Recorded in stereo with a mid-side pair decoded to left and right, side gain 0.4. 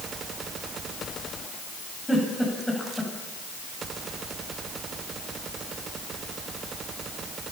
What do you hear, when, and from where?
2.1 s a giggle: 10° left, 8.5 m